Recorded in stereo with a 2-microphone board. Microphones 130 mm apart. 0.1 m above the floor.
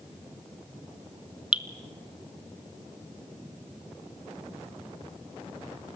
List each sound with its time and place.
1.5 s dripping: 10° right (ahead or behind), 0.9 m